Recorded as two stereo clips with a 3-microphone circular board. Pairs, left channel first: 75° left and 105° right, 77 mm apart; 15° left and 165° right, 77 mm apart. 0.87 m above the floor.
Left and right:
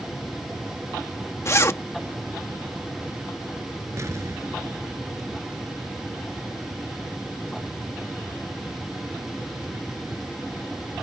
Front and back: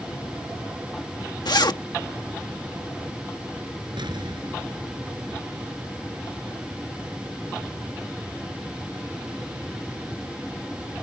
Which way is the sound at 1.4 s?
25° left.